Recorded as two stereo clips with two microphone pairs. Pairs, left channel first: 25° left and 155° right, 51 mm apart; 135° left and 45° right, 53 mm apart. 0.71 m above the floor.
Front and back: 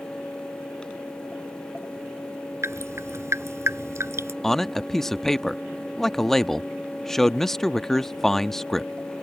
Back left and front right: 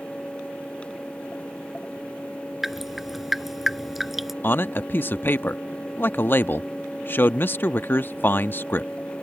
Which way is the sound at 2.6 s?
135° right.